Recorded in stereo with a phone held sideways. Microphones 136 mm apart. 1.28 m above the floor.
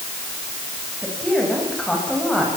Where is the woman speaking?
5° left (ahead or behind), 9 m.